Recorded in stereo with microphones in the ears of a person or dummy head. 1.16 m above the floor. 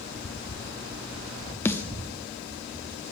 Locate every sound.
1.6 s a snare drum: 15° left (ahead or behind), 0.7 m